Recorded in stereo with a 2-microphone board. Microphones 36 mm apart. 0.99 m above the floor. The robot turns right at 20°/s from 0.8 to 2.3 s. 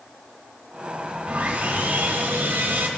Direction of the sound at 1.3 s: 35° right (ahead or behind).